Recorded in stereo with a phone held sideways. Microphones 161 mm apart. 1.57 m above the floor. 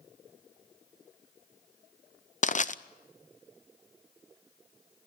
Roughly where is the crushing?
Left.